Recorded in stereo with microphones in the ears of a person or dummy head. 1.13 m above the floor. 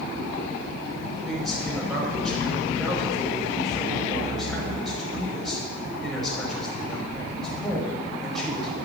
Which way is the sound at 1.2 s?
Centre (ahead or behind).